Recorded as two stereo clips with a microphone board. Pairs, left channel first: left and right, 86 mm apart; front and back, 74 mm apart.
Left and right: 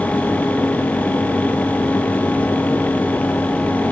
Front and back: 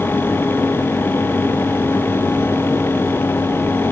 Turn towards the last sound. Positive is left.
No sound to turn to.